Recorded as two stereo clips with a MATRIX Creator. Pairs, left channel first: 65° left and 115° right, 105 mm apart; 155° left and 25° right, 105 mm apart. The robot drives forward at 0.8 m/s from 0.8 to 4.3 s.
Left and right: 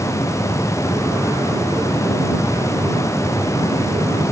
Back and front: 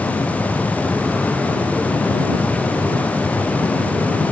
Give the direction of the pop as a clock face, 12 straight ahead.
No pop in this recording.